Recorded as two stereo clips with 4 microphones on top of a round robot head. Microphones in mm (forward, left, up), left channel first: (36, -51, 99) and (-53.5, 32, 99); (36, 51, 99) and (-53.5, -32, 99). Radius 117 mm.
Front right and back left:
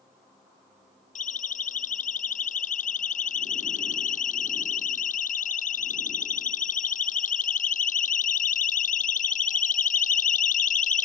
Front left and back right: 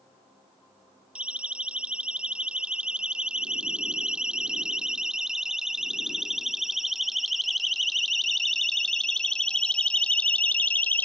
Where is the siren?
55° right; by 11.1 s 35° right.